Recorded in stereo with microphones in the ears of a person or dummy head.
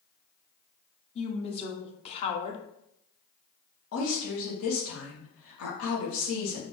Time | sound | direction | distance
1.1 | a woman speaking | 35° left (ahead or behind) | 0.9 m
3.9 | a woman speaking | 75° left (ahead or behind) | 1.6 m